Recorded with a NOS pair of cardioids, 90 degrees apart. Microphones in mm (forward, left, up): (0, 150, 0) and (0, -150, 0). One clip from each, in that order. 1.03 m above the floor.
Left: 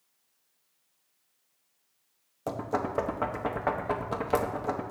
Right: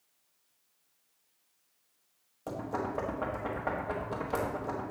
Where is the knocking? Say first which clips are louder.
Left 4 dB; 35° left, 1.0 m.